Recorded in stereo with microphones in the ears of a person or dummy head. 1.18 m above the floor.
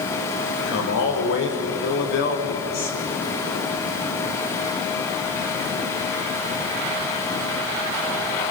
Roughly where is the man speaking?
Left.